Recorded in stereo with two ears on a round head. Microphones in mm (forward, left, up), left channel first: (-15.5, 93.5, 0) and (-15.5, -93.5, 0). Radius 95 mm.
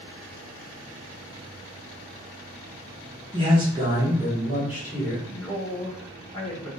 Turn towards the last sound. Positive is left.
turn(degrees=25)  # may be behind; listen again after turning